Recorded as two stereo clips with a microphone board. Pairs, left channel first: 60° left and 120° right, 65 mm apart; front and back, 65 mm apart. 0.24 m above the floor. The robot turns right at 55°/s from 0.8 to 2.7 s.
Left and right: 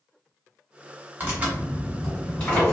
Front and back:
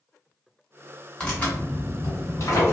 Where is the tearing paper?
75° right, 1.5 m; by 2.7 s 5° left, 1.5 m.